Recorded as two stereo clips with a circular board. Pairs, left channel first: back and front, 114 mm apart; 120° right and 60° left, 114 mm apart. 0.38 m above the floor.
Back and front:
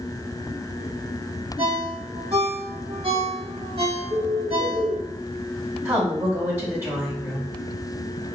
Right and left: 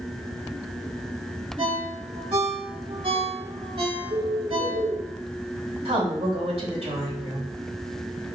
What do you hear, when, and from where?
1.6 s a ringtone: 30° left, 1.0 m
4.1 s a bird: 30° left, 1.3 m
5.8 s a woman speaking: 65° left, 2.5 m